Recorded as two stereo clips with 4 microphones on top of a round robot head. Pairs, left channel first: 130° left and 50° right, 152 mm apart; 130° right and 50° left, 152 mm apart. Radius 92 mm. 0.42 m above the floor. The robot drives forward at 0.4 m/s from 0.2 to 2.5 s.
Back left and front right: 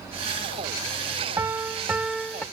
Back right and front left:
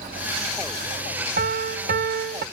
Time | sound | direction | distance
1.4 | a piano | 20° left | ?